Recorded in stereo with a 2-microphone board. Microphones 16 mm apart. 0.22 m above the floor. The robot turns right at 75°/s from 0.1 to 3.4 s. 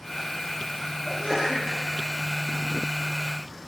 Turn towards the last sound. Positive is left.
turn(degrees=-160)